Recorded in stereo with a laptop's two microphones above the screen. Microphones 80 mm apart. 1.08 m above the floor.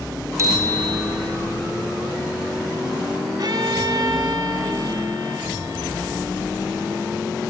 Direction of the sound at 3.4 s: 55° right (ahead or behind).